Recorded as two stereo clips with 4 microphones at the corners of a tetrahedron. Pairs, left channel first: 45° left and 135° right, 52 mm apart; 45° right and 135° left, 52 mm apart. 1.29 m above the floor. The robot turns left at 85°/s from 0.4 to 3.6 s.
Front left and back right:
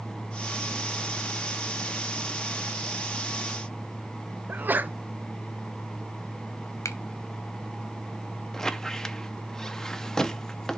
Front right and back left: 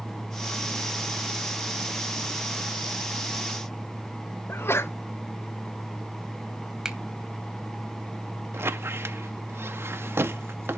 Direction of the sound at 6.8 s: 60° left.